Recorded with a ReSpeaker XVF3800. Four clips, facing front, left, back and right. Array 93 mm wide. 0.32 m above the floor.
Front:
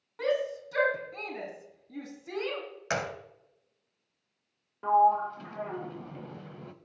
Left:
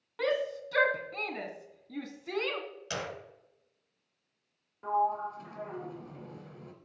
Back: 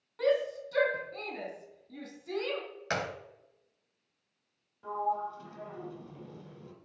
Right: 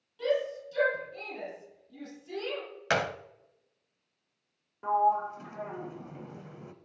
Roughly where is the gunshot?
Right.